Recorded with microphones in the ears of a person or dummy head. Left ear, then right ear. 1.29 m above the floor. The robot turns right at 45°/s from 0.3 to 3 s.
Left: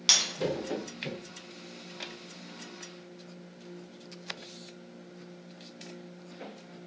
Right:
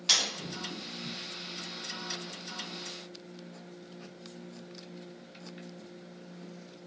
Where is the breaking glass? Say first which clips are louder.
Left 2 dB; 40° left (ahead or behind), 1.7 m.